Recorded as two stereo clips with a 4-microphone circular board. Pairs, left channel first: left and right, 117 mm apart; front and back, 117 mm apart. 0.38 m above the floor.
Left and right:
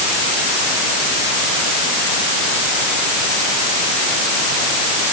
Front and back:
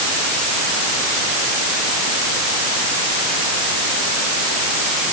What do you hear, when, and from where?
Only background noise.